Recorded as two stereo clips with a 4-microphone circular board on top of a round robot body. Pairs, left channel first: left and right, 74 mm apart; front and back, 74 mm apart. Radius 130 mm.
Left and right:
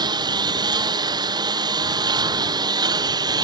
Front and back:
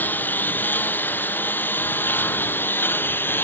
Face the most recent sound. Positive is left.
turn(degrees=-65)